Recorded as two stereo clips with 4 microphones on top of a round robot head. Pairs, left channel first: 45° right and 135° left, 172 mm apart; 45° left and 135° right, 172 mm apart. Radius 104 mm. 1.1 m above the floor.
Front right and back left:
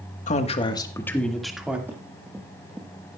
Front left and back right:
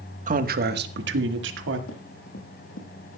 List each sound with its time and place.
0.3 s a man speaking: 95° right, 1.3 m; by 1.8 s 140° right, 1.9 m
1.9 s running footsteps: 60° left, 3.5 m; by 3.2 s 50° left, 2.5 m